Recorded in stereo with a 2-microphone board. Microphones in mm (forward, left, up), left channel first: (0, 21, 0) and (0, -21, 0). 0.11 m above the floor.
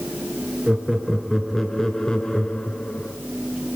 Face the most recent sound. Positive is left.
turn(degrees=30)  # may be behind; listen again after turning